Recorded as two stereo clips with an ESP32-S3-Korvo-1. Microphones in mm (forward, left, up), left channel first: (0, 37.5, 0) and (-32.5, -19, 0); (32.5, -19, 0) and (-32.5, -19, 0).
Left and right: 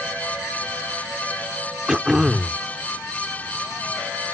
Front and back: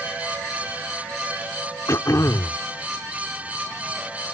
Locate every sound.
1.9 s throat clearing: 40° right